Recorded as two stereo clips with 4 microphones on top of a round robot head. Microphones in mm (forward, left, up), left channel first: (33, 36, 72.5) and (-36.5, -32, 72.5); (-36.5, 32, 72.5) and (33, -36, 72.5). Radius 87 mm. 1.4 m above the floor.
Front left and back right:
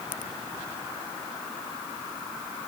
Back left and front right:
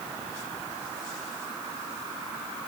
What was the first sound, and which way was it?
Only background noise.